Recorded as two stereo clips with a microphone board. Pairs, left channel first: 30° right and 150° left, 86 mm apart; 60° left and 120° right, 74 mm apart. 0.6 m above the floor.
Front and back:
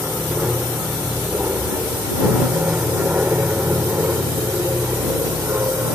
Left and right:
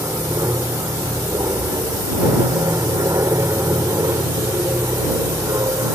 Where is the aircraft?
130° right; by 6.0 s 150° right.